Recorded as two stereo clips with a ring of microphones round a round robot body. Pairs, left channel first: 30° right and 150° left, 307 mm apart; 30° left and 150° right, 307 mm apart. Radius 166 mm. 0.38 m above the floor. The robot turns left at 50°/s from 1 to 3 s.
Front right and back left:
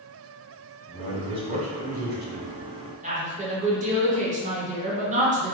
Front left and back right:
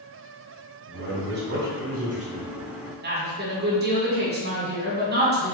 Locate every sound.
0.9 s a man speaking: 135° right, 1.3 m; by 2.6 s 145° left, 1.3 m
3.0 s a woman speaking: 165° right, 1.3 m